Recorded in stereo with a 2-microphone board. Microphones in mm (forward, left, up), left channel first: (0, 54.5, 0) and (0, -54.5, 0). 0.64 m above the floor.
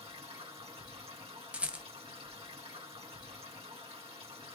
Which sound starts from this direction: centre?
A rattle, at 1.5 s.